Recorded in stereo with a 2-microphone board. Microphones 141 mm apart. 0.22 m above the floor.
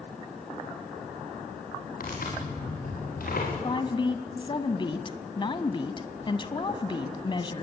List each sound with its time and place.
2.0 s tearing paper: 80° left, 8.5 m
3.6 s a woman speaking: 35° left (ahead or behind), 1.2 m